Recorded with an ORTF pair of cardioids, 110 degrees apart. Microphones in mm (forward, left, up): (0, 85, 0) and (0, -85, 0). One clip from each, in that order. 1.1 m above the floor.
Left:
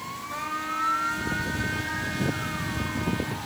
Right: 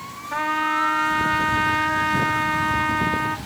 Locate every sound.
0.3 s a trumpet: 65° right, 0.8 m